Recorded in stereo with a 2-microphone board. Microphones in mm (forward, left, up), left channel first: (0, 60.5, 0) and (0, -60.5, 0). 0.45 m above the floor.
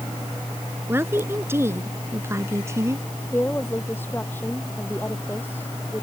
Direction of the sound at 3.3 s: 15° left (ahead or behind).